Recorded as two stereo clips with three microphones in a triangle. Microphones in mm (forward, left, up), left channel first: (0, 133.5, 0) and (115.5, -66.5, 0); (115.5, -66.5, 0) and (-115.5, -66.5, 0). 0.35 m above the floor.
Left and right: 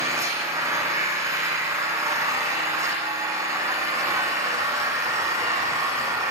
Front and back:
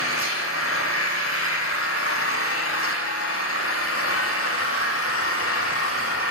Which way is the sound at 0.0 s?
15° left.